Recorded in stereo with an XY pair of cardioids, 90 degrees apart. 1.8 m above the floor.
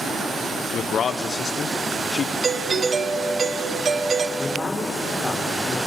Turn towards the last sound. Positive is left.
turn(degrees=10)